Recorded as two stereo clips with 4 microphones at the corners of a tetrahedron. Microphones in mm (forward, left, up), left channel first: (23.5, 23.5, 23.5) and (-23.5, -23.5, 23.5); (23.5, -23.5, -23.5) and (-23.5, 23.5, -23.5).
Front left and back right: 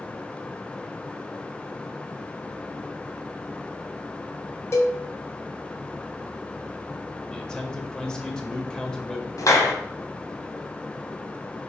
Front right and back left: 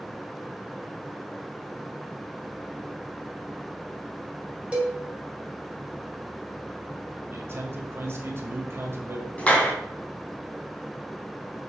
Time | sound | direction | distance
4.7 | a cowbell | 70° left | 2.0 m
7.3 | a man speaking | 120° left | 1.7 m
9.4 | a clap | 25° left | 1.9 m